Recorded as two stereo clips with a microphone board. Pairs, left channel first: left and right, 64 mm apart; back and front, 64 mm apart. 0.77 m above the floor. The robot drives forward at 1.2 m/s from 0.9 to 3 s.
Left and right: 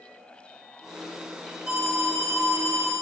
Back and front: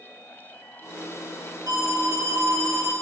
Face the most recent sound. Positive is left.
turn(degrees=-40)